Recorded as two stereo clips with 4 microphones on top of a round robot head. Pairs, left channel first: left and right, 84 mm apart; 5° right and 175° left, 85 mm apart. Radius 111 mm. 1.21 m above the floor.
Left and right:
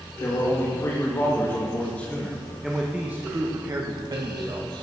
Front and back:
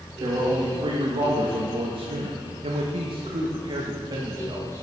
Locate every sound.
0.2 s a man speaking: 140° left, 2 m; by 4.8 s 120° right, 1.6 m